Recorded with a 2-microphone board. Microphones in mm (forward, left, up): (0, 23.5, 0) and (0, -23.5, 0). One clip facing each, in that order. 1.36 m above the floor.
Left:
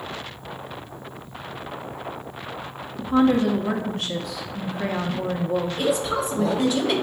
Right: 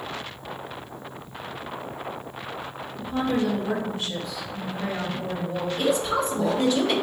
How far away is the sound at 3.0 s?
About 0.6 m.